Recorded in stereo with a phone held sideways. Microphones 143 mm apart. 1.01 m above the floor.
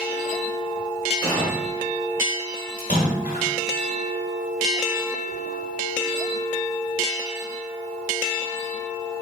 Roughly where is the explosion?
Centre.